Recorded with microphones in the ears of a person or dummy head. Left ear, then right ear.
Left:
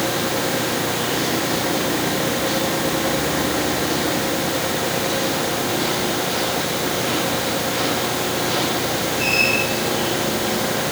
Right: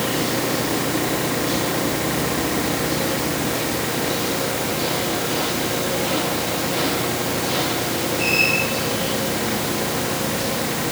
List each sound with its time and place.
Only background noise.